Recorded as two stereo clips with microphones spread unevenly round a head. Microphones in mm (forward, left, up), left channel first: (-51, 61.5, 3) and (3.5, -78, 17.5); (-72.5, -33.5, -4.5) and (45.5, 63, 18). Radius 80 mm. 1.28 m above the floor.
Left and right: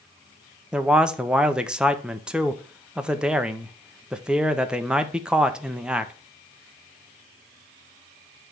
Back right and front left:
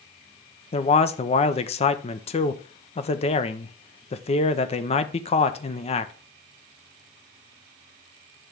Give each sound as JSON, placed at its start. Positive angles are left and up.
{"t": 0.7, "sound": "a man speaking", "azimuth_deg": -155, "distance_m": 0.7}